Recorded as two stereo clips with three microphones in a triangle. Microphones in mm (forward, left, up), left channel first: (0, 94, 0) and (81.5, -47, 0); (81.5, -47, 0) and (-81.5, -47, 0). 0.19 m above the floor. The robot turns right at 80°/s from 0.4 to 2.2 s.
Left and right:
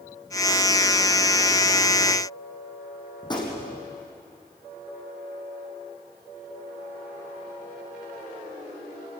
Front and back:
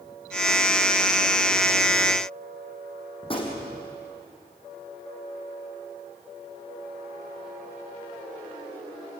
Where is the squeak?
I don't hear a squeak.